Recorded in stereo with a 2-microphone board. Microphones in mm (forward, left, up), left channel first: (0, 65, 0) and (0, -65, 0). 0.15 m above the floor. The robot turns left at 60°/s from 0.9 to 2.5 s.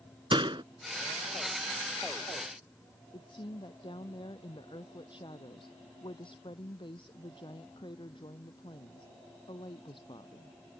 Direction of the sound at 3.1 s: 40° left (ahead or behind).